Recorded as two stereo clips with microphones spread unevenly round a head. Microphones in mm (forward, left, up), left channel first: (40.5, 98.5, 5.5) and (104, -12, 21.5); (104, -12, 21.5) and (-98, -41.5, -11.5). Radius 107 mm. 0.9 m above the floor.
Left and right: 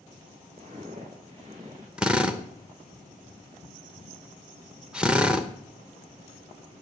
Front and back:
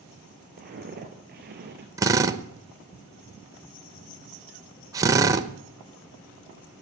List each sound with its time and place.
0.6 s footsteps: 120° right, 4 m; by 1.9 s 125° right, 3 m
2.0 s a drill: 150° right, 0.9 m